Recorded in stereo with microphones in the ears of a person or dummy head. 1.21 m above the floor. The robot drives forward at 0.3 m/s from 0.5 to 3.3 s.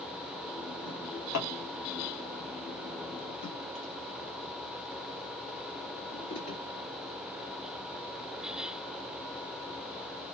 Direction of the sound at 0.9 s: 60° left (ahead or behind).